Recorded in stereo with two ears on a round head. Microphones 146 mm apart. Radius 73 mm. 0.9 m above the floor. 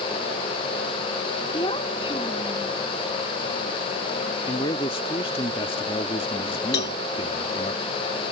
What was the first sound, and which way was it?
A child speaking, 30° left (ahead or behind).